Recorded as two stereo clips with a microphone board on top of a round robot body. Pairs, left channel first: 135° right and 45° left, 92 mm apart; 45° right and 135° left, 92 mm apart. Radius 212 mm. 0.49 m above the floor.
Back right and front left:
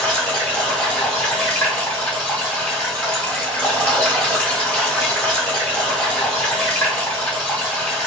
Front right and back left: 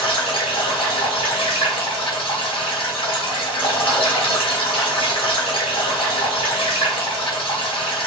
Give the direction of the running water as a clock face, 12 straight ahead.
2 o'clock.